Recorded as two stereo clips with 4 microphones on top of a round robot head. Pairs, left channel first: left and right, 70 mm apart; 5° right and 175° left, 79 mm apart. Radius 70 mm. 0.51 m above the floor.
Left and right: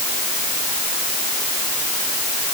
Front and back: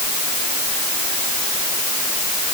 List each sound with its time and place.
Only background noise.